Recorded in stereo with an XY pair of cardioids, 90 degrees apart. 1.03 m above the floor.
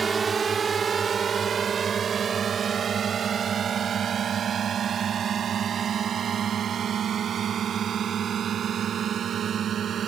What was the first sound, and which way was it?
A drone, 35° right.